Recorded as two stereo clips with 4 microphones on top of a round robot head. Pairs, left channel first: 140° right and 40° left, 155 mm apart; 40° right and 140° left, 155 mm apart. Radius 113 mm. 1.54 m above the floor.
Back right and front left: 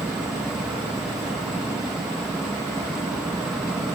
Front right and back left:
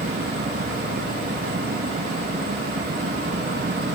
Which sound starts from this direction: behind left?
An insect, at 0.0 s.